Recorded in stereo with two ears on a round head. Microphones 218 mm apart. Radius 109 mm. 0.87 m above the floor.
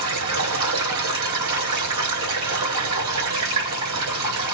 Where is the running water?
85° right, 5 m.